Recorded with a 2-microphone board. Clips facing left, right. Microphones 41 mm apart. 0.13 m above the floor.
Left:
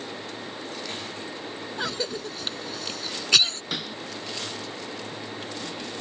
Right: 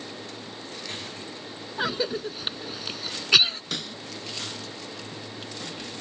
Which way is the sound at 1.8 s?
15° right (ahead or behind).